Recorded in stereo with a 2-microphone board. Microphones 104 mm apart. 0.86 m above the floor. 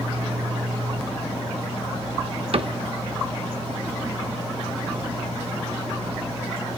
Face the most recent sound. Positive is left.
turn(degrees=-60)  # may be behind; listen again after turning